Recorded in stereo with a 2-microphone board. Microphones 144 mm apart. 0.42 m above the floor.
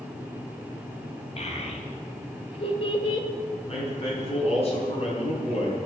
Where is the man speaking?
45° left (ahead or behind), 4 m.